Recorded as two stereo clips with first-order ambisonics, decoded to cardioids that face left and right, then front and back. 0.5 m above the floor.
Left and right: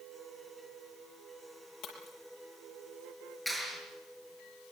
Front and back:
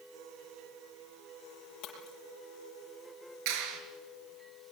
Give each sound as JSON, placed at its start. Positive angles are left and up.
{"t": 1.8, "sound": "breaking glass", "azimuth_deg": 40, "distance_m": 6.0}
{"t": 3.5, "sound": "a clap", "azimuth_deg": 180, "distance_m": 5.5}